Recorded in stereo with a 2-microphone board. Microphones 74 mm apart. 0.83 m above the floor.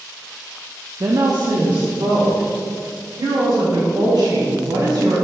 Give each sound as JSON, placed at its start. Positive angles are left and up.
{"t": 1.0, "sound": "a woman speaking", "side_deg": -45, "distance_m": 0.8}